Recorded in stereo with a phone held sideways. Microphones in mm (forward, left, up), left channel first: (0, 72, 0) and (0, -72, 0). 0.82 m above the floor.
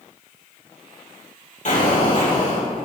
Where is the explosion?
60° left (ahead or behind), 4 m.